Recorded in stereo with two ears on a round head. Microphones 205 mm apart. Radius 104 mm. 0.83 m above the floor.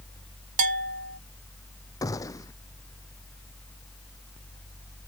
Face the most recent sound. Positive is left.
turn(degrees=15)  # may be behind; listen again after turning